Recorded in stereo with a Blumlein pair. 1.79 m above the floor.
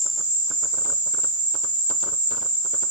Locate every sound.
0.0 s an insect: 45° right, 0.9 m